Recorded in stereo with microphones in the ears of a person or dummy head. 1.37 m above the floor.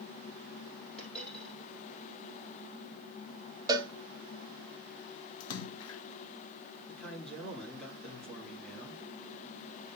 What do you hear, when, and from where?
1.0 s a dropped coin: centre (ahead or behind), 5 m
3.7 s a cowbell: 25° right (ahead or behind), 0.8 m
5.4 s a splash: 70° left (ahead or behind), 0.6 m
6.9 s a man speaking: centre (ahead or behind), 2.5 m